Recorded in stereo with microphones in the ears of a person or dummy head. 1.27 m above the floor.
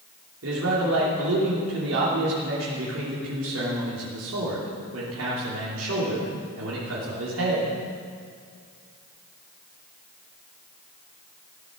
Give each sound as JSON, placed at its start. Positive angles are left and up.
{"t": 0.4, "sound": "a man speaking", "side_deg": -85, "distance_m": 3.0}